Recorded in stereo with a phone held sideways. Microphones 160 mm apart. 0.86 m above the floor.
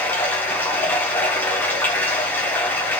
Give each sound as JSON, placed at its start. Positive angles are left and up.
{"t": 0.0, "sound": "running water", "side_deg": 10, "distance_m": 1.4}